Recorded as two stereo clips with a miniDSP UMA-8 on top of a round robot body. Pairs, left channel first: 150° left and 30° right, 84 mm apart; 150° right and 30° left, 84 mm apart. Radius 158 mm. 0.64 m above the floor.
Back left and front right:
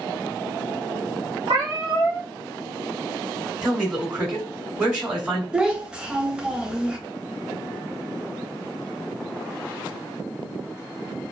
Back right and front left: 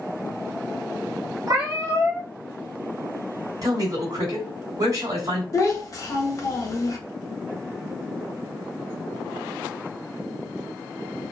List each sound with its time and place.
1.5 s a cat meowing: 20° right, 0.9 m
3.6 s a man speaking: 50° left, 1.8 m
5.5 s a child speaking: 110° right, 0.9 m